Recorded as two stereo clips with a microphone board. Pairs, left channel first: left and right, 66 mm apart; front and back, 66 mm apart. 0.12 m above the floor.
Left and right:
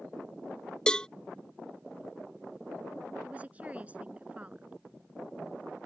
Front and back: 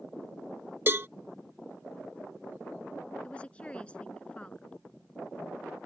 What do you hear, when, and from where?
0.9 s a cowbell: 160° left
3.2 s a woman speaking: 50° right